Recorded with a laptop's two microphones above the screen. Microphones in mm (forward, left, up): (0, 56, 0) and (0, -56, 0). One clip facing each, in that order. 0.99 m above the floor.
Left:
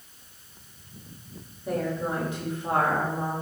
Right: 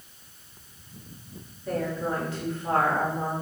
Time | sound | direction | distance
1.7 | a woman speaking | 20° left (ahead or behind) | 2 m